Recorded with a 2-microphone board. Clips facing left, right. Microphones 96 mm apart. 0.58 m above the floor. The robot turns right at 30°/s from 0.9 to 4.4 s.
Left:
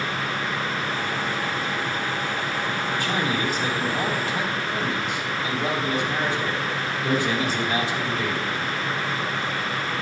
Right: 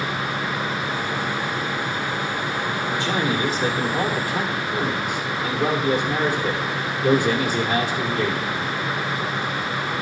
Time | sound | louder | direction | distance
2.9 | a man speaking | right 3 dB | 140° right | 1.7 m